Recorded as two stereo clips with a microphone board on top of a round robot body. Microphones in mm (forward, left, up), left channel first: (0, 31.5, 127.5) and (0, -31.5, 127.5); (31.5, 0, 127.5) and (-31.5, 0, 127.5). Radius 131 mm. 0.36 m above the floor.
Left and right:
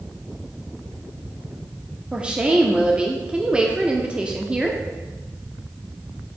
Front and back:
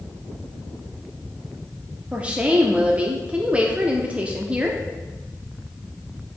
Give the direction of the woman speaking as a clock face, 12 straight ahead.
5 o'clock.